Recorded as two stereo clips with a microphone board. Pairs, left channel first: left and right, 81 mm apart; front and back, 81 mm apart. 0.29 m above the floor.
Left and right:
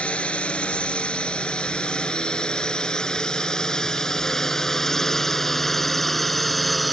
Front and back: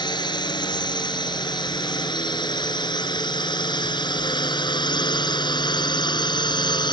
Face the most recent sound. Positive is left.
turn(degrees=0)